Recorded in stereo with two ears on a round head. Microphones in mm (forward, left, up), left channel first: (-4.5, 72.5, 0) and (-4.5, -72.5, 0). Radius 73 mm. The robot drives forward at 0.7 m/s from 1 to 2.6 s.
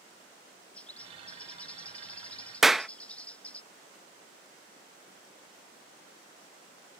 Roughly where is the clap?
Centre.